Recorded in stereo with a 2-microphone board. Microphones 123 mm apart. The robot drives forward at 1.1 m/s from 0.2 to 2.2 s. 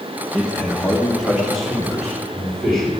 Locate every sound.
0.3 s a man speaking: centre (ahead or behind), 1.3 m